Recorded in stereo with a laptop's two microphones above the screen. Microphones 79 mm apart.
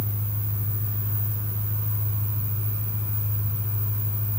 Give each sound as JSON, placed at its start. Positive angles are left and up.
{"t": 0.0, "sound": "an engine running", "side_deg": -40, "distance_m": 10.0}